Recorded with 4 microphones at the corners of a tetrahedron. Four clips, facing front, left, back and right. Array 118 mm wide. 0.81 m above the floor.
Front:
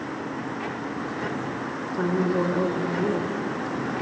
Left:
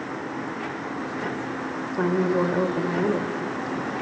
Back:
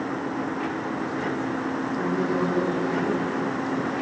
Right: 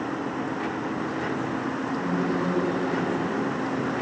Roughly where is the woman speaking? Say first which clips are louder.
Left 7 dB, front 3 dB; left.